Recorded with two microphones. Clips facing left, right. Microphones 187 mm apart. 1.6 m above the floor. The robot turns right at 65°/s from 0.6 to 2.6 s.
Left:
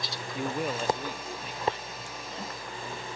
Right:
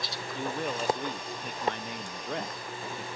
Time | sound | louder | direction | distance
0.3 | a man speaking | left 2 dB | 170° left | ?